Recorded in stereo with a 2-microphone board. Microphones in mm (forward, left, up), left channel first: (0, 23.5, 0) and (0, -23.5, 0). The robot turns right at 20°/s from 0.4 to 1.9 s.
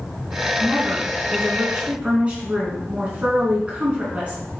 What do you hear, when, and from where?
0.6 s a woman speaking: 50° right (ahead or behind), 3.5 m; by 4.4 s 25° right (ahead or behind), 3.5 m